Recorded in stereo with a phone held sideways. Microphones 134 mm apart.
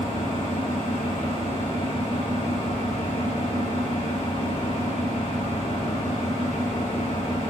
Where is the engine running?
55° left (ahead or behind), 4 m.